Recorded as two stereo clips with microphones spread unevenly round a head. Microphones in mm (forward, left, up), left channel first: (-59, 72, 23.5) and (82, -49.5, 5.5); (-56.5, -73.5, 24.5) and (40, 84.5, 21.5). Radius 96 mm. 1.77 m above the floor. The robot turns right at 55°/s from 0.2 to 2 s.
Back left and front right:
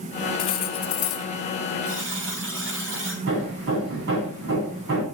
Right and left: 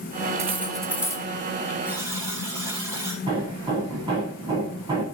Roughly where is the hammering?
Ahead.